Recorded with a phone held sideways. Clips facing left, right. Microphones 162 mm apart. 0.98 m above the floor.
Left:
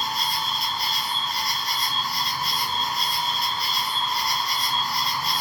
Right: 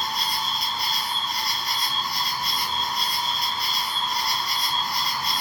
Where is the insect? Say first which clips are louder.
Left 1 dB; centre (ahead or behind), 1.0 m.